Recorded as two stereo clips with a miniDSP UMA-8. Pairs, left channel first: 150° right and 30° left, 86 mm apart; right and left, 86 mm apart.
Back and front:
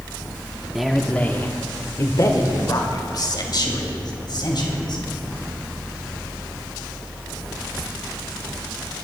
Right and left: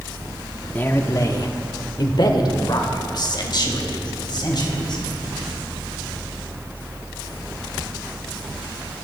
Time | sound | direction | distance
0.8 | a man speaking | 55° right | 0.8 m